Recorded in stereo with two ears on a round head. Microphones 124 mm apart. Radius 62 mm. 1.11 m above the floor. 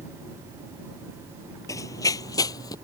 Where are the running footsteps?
25° left (ahead or behind).